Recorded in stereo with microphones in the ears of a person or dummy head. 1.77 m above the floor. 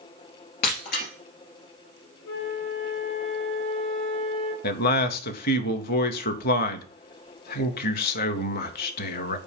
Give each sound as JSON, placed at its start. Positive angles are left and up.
{"t": 0.6, "sound": "breaking glass", "side_deg": 45, "distance_m": 2.5}
{"t": 2.2, "sound": "a flute", "side_deg": 70, "distance_m": 1.4}
{"t": 4.6, "sound": "a man speaking", "side_deg": 55, "distance_m": 0.8}